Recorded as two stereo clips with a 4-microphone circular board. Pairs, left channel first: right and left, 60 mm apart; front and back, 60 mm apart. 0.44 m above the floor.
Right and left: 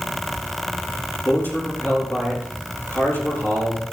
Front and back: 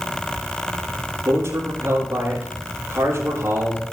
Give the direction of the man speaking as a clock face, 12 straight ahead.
5 o'clock.